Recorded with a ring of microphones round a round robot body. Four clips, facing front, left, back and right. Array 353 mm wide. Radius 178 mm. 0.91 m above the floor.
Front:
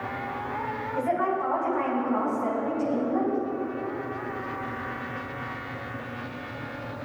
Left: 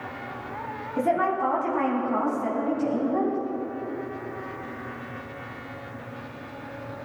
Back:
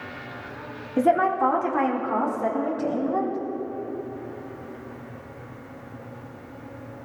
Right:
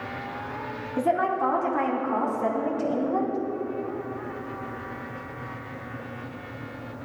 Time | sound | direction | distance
1.0 | a woman speaking | straight behind | 1.9 m